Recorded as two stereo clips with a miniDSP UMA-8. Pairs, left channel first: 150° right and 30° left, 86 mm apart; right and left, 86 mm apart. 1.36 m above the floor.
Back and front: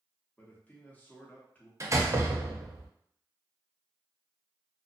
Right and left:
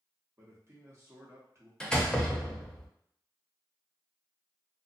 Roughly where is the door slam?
Ahead.